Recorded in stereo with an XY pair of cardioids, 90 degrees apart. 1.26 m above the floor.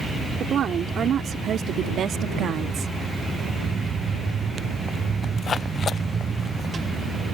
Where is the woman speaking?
70° right; by 2.9 s 75° right.